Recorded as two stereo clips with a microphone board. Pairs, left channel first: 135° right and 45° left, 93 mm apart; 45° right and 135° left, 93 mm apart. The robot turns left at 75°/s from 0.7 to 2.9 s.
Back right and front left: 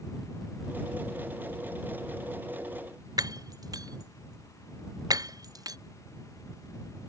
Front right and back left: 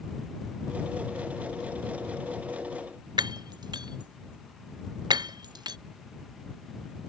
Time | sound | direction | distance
3.2 | breaking glass | 95° left | ?